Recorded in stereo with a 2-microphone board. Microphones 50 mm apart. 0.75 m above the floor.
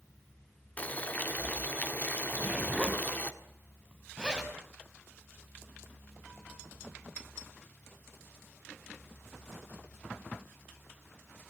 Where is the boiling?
35° left (ahead or behind), 1.7 m.